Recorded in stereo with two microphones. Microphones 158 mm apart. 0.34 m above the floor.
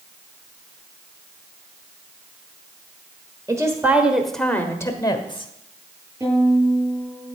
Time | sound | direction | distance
3.5 | a woman speaking | 20° right (ahead or behind) | 1.3 m
6.2 | a violin | 25° right (ahead or behind) | 8 m